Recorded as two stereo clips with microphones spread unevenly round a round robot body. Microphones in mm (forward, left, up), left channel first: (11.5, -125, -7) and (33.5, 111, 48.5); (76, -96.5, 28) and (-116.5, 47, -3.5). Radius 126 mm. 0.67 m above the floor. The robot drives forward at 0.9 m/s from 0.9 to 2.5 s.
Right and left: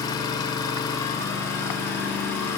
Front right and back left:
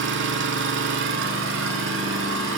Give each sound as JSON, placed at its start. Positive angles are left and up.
{"t": 0.0, "sound": "an engine running", "azimuth_deg": -175, "distance_m": 0.9}